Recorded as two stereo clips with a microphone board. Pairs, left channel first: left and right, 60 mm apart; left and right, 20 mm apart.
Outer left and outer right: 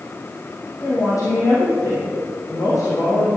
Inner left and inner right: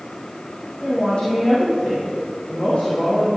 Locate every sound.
0.8 s a woman speaking: 65° left (ahead or behind), 4.5 m